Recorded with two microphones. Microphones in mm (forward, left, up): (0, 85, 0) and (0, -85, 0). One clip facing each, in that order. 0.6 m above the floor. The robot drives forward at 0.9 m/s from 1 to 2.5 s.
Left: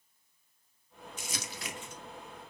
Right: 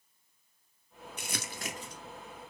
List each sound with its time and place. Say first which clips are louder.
1.2 s crumpling: right 2 dB; 60° right (ahead or behind), 0.6 m; by 2.0 s 35° right (ahead or behind), 0.9 m